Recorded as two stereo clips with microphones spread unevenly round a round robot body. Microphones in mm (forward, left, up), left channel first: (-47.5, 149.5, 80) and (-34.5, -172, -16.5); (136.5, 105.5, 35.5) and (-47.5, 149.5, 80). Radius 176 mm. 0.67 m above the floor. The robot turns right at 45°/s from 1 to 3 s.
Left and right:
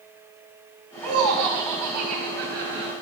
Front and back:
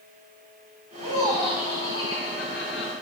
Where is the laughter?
120° right, 3 m; by 2.9 s 35° right, 3 m.